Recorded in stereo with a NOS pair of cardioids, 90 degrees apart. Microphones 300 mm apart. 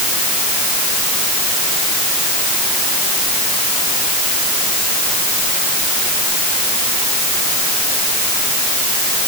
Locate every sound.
Only background noise.